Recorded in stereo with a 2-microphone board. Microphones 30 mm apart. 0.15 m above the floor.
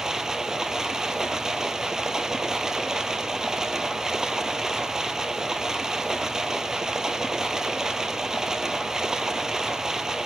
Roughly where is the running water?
Centre.